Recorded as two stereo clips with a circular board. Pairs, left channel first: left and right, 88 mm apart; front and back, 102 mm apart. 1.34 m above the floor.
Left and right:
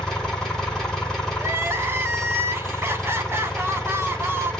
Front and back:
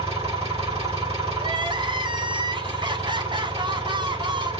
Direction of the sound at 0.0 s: 175° left.